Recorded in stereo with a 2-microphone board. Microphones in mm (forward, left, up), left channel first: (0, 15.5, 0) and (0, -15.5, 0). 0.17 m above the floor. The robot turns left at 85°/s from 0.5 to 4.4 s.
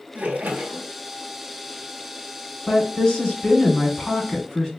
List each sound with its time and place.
0.1 s a splash: 115° right, 0.8 m; by 0.9 s 150° right, 0.8 m
2.7 s a woman speaking: 170° left, 1.3 m; by 4.7 s 20° left, 1.3 m